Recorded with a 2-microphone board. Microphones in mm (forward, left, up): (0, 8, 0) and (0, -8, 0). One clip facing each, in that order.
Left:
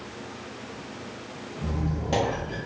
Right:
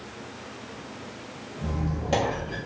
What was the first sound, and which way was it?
A squeak, 5° right (ahead or behind).